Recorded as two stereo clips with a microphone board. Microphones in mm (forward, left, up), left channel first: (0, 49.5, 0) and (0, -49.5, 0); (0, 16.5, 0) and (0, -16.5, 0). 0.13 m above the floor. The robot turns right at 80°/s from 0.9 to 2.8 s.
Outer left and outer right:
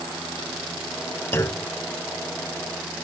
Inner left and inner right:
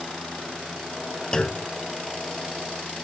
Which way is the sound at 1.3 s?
20° left (ahead or behind).